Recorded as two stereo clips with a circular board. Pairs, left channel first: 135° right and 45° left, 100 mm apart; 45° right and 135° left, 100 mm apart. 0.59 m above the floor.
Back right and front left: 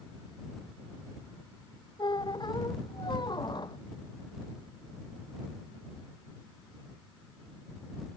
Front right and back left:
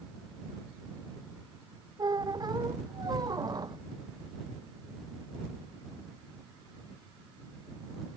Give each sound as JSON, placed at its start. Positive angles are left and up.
{"t": 2.0, "sound": "a squeak", "azimuth_deg": -175}